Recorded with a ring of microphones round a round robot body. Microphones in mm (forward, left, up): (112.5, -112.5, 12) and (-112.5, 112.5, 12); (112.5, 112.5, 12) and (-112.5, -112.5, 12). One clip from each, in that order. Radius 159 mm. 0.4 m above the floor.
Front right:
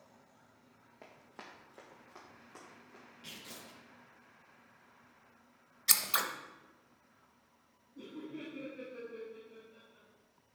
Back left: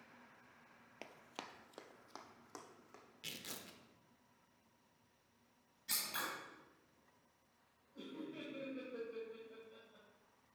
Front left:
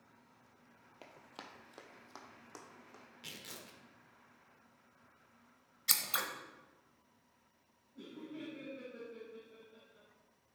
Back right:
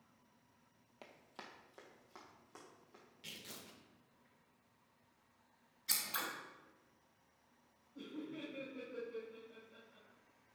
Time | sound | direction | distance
1.0 | running footsteps | 135° left | 0.7 m
3.2 | tearing paper | 115° left | 0.7 m
5.9 | scissors | 15° right | 0.8 m
8.0 | laughter | 155° left | 1.8 m